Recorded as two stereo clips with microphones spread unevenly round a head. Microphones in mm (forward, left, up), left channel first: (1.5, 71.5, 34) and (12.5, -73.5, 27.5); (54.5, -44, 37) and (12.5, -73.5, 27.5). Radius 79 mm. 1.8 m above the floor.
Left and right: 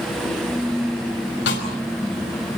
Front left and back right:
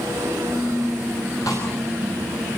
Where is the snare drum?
95° left, 5.5 m.